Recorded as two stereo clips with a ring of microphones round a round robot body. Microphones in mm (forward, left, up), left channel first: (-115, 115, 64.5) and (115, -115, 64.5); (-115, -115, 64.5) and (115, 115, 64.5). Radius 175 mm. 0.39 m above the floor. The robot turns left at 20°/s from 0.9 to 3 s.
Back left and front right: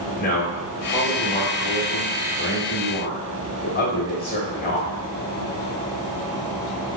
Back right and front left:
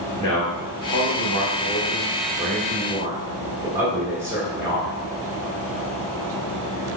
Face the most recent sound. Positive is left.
turn(degrees=120)